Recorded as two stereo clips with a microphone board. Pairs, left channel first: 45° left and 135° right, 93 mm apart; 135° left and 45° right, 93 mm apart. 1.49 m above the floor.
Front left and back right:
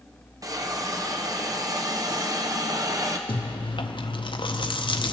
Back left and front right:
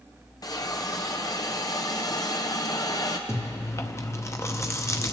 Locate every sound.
0.4 s a hiss: straight behind, 0.8 m
3.3 s chewing: 75° left, 0.6 m